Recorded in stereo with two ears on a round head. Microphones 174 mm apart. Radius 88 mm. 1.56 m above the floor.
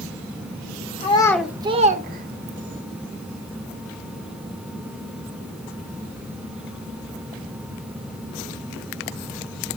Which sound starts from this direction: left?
A child speaking, at 1.0 s.